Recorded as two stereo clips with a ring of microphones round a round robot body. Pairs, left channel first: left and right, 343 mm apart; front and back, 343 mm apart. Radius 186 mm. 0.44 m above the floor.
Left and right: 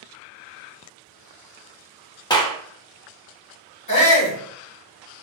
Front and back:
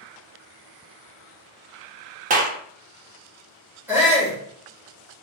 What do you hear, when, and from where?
2.3 s a clap: 155° left, 0.5 m
3.9 s a shout: 100° left, 1.5 m